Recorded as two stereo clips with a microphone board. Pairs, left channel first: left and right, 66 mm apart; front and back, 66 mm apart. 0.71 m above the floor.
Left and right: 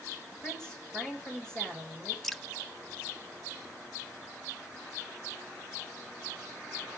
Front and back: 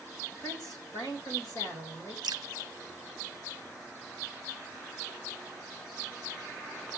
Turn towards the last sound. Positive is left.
turn(degrees=175)